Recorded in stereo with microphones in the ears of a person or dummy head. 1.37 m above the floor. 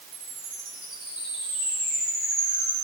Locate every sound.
0.1 s a chime: 5° right (ahead or behind), 8.5 m